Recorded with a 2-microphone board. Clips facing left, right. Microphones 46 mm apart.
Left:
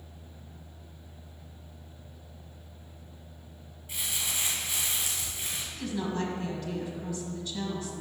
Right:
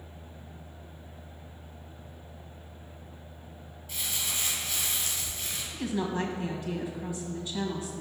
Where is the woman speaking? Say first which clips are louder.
Right 2 dB; 20° right (ahead or behind), 1.3 m.